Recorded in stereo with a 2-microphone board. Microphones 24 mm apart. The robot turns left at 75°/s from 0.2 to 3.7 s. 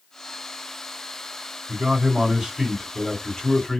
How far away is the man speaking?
About 2 m.